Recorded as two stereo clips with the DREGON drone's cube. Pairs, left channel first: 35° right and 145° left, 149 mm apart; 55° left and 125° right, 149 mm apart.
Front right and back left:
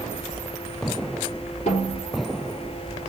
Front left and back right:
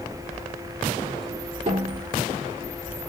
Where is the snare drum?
80° right, 5.5 m.